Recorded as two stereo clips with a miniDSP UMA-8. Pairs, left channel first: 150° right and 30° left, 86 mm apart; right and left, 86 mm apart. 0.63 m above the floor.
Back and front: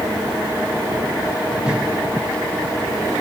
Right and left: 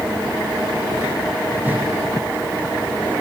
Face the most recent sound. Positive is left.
turn(degrees=85)